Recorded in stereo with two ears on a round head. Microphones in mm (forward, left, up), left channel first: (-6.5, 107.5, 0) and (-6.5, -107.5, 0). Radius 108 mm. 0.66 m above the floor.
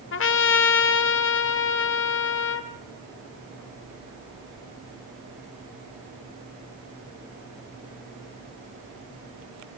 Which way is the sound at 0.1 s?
55° left (ahead or behind).